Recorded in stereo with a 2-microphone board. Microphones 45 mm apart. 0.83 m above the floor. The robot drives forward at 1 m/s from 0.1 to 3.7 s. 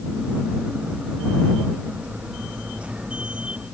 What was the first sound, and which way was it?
Only background noise.